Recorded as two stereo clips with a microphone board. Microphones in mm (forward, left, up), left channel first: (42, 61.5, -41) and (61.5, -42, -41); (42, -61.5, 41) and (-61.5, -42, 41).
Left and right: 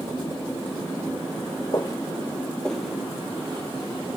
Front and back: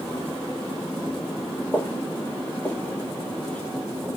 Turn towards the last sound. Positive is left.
turn(degrees=-85)